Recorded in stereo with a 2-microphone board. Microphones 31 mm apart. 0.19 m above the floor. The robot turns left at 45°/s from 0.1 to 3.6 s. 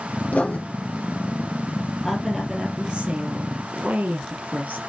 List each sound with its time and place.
0.3 s writing: 55° left (ahead or behind), 2.5 m; by 0.6 s 65° left (ahead or behind), 2.5 m
2.0 s a woman speaking: straight ahead, 3.5 m; by 4.8 s 70° right, 3.5 m